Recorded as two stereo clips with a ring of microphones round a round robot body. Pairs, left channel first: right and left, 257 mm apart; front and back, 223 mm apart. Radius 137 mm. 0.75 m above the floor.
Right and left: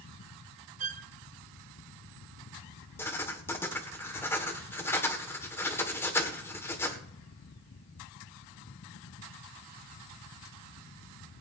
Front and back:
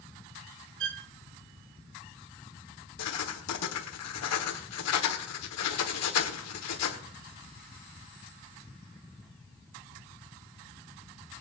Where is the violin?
150° left, 0.7 m.